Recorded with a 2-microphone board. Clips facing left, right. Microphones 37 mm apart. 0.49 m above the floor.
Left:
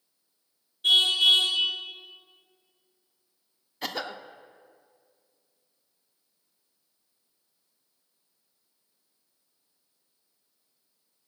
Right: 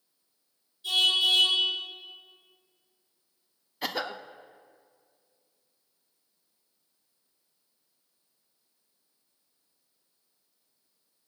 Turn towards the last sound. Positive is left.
turn(degrees=-5)  # may be behind; listen again after turning